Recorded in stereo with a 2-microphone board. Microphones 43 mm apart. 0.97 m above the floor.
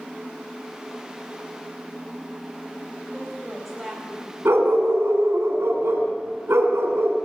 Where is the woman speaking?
Centre (ahead or behind), 4.5 m.